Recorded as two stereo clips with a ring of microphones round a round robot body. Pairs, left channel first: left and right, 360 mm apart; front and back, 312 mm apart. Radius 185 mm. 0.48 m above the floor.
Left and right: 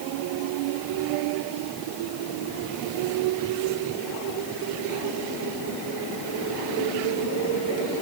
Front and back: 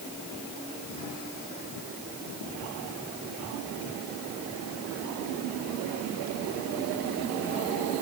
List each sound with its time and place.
Only background noise.